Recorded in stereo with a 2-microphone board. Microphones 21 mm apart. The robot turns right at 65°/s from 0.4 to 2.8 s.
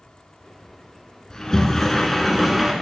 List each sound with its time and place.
1.3 s a sliding door: 110° left, 1.8 m; by 2.7 s 155° right, 1.8 m